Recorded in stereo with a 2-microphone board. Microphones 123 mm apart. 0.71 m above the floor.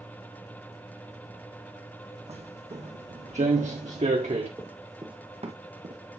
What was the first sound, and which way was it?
Footsteps, 60° right (ahead or behind).